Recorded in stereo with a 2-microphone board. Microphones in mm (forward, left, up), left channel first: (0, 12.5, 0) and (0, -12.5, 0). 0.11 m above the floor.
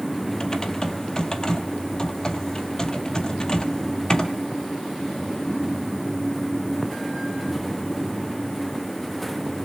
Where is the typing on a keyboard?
25° left (ahead or behind), 1.3 m.